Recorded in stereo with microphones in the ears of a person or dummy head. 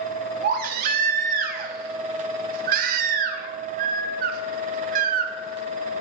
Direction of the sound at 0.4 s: 50° right (ahead or behind).